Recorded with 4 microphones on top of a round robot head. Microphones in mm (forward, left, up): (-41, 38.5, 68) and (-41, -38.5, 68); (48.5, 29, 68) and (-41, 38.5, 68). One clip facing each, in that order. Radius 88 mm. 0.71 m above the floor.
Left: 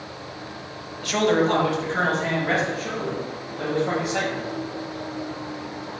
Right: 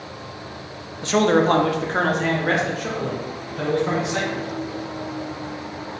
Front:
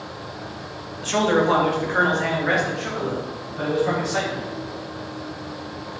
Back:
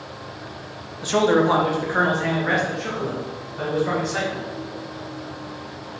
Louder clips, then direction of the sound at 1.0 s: Right 3 dB, back 2 dB; 130° right.